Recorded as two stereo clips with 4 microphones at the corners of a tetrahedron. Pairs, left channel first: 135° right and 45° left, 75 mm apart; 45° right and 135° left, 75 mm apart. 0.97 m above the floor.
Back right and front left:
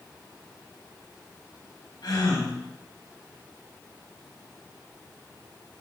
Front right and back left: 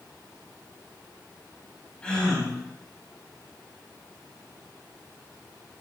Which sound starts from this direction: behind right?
A gasp, at 2.0 s.